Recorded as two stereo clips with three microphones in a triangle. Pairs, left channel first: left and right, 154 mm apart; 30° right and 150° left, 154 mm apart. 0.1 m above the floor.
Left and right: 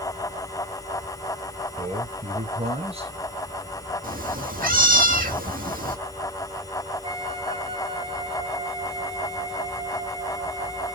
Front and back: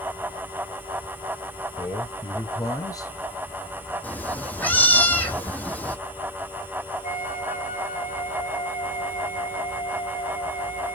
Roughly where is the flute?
Ahead right.